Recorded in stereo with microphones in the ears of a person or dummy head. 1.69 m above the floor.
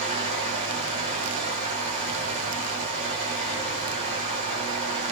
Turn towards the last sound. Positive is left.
turn(degrees=-55)  # may be behind; listen again after turning